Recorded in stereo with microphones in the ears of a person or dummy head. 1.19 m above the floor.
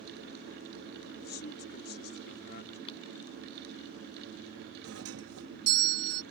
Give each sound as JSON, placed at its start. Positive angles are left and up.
{"t": 1.2, "sound": "a man speaking", "side_deg": 45}
{"t": 2.9, "sound": "crumpling", "side_deg": 35}
{"t": 4.8, "sound": "a doorbell", "side_deg": -75}